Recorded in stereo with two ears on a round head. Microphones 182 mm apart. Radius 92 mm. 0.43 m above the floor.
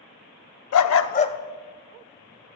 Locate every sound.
0.7 s a dog barking: 80° left, 0.6 m; by 2.6 s 15° right (ahead or behind), 2.5 m